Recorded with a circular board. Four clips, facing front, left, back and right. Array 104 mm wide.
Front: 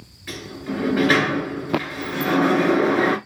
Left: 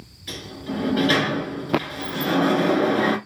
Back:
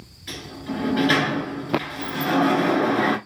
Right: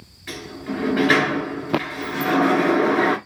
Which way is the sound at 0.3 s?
65° right.